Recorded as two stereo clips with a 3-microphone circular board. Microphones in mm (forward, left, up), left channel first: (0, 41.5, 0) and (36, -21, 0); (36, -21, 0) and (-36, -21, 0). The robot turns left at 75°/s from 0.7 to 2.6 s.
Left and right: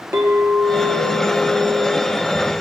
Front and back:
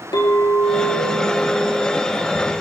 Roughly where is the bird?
I don't hear a bird.